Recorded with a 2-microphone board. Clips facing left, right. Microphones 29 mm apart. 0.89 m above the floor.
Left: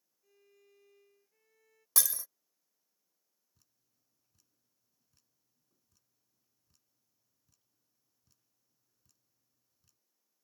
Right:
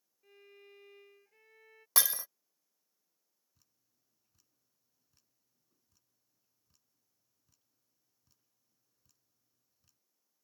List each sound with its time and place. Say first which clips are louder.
0.2 s a violin: right 9 dB; 40° right (ahead or behind)
2.0 s breaking glass: right 3 dB; 30° right (ahead or behind)
3.5 s dripping: even; 5° right (ahead or behind)